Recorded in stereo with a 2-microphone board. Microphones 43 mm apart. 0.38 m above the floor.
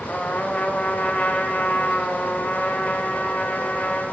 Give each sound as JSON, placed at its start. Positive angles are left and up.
{"t": 0.1, "sound": "a trumpet", "side_deg": 25, "distance_m": 0.7}